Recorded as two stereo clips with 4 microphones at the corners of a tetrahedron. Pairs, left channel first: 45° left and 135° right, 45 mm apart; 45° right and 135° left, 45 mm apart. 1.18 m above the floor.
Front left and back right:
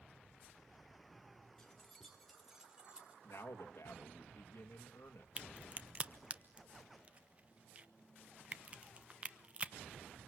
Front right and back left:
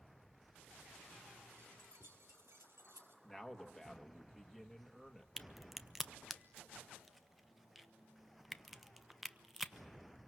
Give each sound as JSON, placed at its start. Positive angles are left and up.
{"t": 1.6, "sound": "keys jangling", "azimuth_deg": 120, "distance_m": 3.0}
{"t": 3.2, "sound": "a man speaking", "azimuth_deg": 45, "distance_m": 1.6}
{"t": 5.4, "sound": "a crack", "azimuth_deg": -145, "distance_m": 0.7}